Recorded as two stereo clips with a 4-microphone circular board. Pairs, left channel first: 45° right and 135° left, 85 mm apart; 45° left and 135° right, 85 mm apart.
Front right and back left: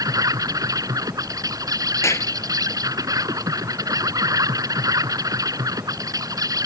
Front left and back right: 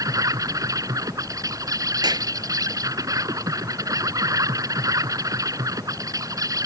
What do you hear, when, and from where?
0.0 s an insect: straight behind
2.0 s a clap: 100° right